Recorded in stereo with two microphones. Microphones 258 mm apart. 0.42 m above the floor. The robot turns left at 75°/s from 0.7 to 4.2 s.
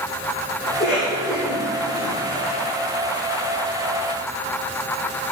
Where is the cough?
45° left (ahead or behind), 8 m; by 2.6 s 10° right (ahead or behind), 8 m.